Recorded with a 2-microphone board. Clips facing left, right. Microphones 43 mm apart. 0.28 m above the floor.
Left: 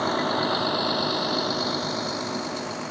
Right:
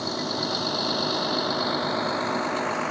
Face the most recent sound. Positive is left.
turn(degrees=-35)  # may be behind; listen again after turning